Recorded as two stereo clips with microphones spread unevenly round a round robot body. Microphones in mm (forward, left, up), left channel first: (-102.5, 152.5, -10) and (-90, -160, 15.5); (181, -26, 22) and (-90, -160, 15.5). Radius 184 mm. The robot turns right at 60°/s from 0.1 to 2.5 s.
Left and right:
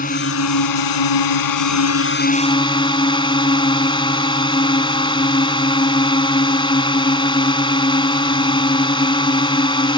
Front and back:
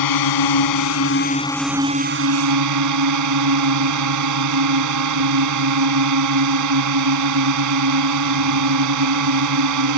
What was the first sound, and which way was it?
A drone, 25° left.